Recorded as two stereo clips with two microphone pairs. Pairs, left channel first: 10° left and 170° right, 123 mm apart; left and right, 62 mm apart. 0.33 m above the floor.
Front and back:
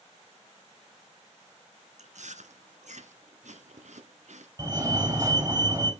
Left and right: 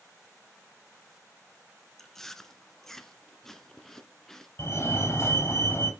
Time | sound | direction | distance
2.0 | chewing | 175° left | 1.0 m
4.6 | a fire alarm | 130° left | 4 m